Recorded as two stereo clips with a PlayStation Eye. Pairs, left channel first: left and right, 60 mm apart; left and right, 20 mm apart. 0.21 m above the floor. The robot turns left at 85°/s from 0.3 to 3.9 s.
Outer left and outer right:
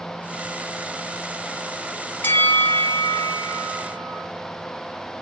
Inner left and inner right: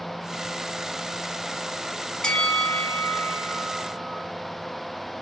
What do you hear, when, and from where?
2.2 s a bell: 115° left, 0.6 m; by 4.3 s 30° right, 0.6 m